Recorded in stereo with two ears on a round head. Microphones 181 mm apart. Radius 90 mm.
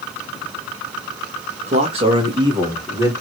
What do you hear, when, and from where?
1.7 s a man speaking: 35° right (ahead or behind), 1.7 m; by 3.1 s 15° right (ahead or behind), 2 m